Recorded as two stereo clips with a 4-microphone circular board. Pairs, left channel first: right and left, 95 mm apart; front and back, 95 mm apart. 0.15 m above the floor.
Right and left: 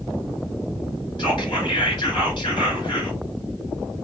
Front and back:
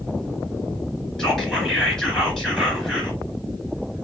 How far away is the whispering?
About 2 m.